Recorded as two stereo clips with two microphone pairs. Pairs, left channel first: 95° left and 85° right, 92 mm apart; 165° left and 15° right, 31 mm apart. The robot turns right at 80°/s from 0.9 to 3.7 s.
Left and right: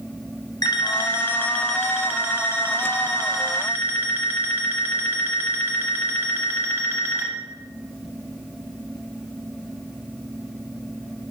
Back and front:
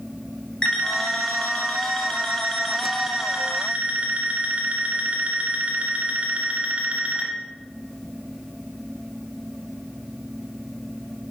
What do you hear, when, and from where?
0.6 s an alarm clock: 110° left, 0.8 m; by 7.3 s 30° right, 0.8 m